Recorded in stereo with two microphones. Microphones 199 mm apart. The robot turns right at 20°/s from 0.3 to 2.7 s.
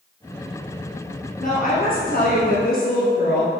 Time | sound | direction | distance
1.4 | a woman speaking | 40° left (ahead or behind) | 1.8 m